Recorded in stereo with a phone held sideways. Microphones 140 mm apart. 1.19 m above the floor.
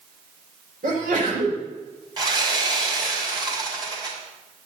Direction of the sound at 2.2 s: 30° right (ahead or behind).